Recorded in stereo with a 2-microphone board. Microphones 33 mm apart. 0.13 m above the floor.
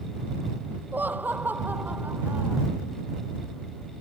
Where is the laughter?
75° right (ahead or behind).